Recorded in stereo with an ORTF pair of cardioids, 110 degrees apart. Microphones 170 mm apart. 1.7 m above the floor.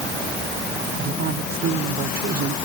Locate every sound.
1.0 s a woman speaking: 70° right